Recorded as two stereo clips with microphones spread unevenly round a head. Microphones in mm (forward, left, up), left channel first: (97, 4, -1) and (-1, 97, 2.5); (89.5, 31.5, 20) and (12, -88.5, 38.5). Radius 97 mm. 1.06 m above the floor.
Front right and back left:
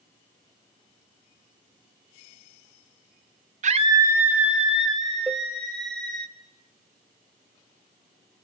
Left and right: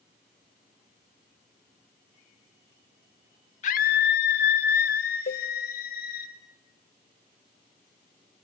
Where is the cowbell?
65° left, 0.7 m.